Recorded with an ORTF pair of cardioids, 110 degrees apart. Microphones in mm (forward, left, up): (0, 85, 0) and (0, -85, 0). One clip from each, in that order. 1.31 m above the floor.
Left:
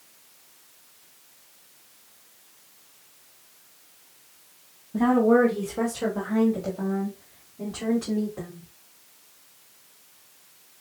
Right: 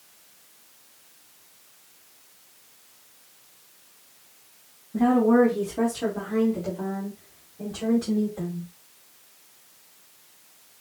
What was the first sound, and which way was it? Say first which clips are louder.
A woman speaking: even; 10° left.